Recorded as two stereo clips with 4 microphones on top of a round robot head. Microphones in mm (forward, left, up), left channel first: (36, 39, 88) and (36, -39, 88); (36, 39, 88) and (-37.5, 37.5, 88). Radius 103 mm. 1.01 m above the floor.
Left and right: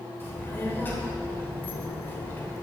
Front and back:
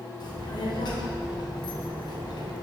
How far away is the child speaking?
About 2.5 m.